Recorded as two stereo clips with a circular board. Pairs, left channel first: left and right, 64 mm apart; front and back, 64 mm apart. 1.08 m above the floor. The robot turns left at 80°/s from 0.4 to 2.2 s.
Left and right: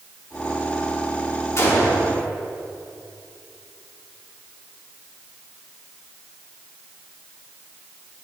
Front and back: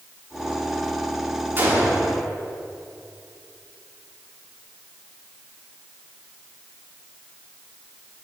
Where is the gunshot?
130° left, 3 m; by 2.1 s 85° left, 3 m.